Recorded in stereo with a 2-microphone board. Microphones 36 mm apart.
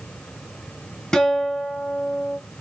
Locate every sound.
1.1 s a guitar: 20° left (ahead or behind), 1.3 m